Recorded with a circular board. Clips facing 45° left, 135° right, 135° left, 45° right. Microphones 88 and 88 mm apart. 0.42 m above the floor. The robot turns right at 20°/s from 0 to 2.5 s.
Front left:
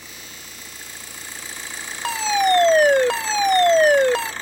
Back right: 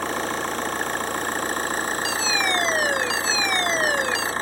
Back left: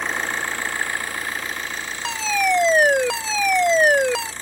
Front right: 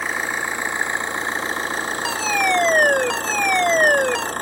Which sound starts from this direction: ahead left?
A fire alarm, at 2.0 s.